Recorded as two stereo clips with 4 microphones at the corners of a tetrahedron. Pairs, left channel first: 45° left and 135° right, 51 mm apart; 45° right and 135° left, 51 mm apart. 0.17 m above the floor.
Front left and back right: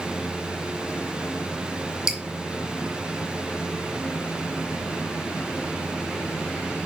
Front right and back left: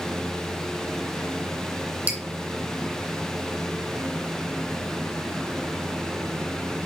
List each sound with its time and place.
2.1 s dripping: 155° left, 1.8 m